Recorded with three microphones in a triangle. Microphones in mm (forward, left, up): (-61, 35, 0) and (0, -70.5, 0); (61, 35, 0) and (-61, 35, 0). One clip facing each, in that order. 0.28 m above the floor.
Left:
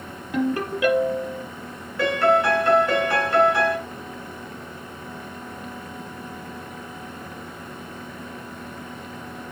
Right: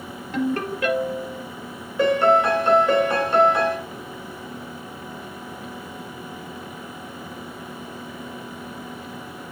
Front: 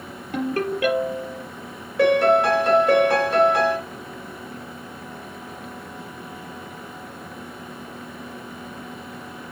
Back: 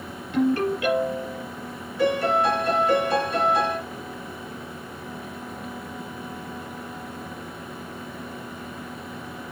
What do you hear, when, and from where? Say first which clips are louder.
0.3 s a ringtone: left 1 dB, back 3 dB; 40° left, 4.5 m
2.0 s a piano: right 2 dB, front 5 dB; 10° left, 2 m